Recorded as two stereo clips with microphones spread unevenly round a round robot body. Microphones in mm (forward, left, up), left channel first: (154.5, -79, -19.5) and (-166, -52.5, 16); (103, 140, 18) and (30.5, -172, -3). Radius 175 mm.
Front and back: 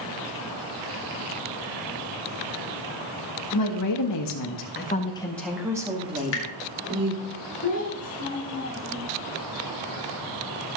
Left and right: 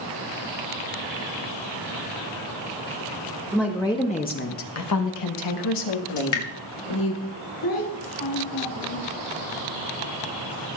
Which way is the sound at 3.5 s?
10° right.